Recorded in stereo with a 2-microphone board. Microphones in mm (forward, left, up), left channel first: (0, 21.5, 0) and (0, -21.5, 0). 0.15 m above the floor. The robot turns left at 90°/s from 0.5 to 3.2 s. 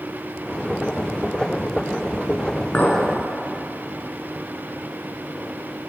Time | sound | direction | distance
2.7 | a clink | 35° left (ahead or behind) | 1.0 m